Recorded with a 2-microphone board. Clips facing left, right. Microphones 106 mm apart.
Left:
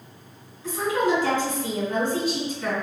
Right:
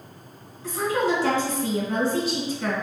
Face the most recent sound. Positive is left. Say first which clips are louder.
# even
turn(degrees=-35)  # may be behind; listen again after turning